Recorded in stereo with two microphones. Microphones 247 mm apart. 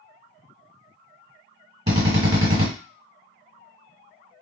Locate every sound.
1.9 s a drill: 25° right (ahead or behind), 1.9 m